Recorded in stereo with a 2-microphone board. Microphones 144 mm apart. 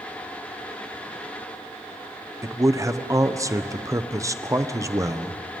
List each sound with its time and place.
2.4 s a man speaking: 20° right (ahead or behind), 0.8 m